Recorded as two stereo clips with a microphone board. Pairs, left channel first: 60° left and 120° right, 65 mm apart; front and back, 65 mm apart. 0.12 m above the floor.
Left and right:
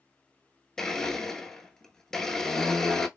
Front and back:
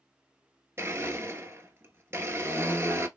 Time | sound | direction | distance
0.8 | a blender | 140° left | 0.7 m